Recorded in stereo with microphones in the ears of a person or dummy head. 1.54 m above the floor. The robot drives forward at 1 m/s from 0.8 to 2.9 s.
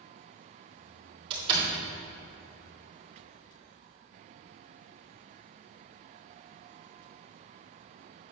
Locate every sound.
1.3 s a door slam: 35° right (ahead or behind), 3.5 m